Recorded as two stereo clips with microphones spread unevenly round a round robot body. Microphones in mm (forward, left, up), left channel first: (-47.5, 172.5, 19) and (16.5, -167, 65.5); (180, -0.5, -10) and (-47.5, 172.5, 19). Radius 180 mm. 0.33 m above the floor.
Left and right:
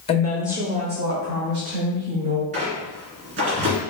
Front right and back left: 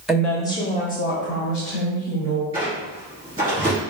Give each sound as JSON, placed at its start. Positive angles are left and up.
{"t": 0.1, "sound": "a woman speaking", "azimuth_deg": 50, "distance_m": 1.1}
{"t": 2.5, "sound": "a squeak", "azimuth_deg": -135, "distance_m": 2.0}